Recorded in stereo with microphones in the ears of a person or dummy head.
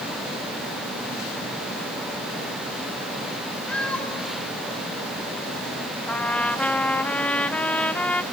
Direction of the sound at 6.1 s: 5° left (ahead or behind).